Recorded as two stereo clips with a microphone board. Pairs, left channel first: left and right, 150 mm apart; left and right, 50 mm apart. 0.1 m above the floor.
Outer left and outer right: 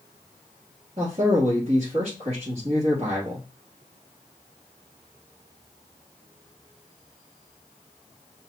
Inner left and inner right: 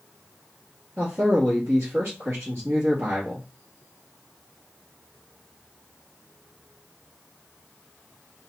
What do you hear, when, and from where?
1.0 s a man speaking: 50° right (ahead or behind), 1.8 m